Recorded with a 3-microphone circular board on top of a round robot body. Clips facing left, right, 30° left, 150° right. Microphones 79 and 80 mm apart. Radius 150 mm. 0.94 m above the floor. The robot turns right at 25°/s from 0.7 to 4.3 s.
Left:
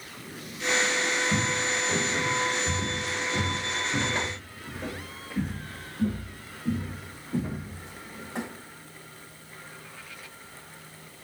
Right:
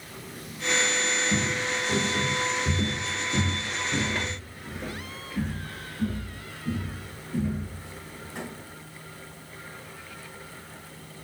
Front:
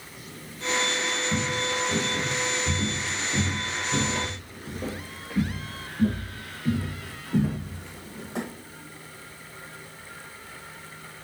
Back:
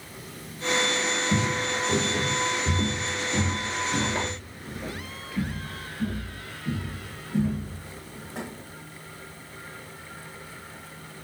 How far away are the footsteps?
About 1.5 m.